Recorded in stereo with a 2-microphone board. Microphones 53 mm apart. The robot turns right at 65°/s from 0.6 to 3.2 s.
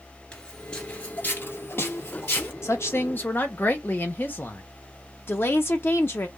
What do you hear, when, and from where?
0.3 s footsteps: 15° left (ahead or behind), 1.2 m; by 2.5 s 40° left (ahead or behind), 1.9 m
2.6 s a woman speaking: 100° left, 1.0 m; by 4.6 s 135° left, 1.0 m
5.3 s a woman speaking: 45° left (ahead or behind), 0.6 m